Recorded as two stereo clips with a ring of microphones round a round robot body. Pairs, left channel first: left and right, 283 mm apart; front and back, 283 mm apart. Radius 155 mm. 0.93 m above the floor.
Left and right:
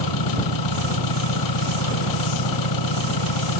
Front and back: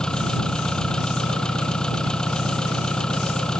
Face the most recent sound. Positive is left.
turn(degrees=85)